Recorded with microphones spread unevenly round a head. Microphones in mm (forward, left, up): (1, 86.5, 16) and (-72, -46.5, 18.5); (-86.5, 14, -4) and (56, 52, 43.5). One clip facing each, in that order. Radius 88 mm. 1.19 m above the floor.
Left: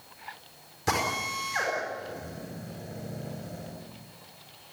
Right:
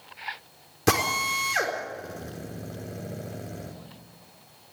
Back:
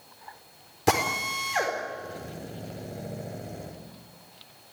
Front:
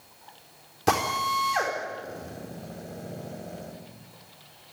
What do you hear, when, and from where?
0.9 s a drill: 80° right, 4 m